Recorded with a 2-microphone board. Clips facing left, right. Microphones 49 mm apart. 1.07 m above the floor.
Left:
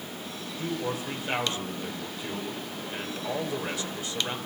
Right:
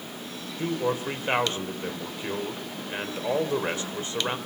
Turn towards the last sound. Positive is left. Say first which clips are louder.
# right 5 dB
turn(degrees=-30)  # may be behind; listen again after turning